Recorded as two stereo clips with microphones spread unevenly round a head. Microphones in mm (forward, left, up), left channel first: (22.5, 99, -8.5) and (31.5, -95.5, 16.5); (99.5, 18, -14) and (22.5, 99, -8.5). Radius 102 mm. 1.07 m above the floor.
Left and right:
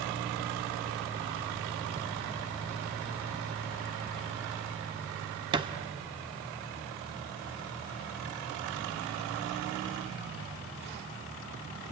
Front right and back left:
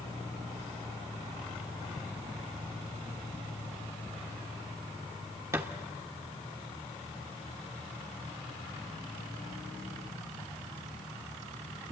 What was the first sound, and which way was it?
A thud, 155° right.